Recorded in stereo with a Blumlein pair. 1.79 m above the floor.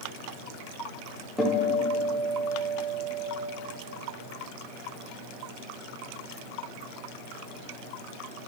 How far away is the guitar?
About 1.4 m.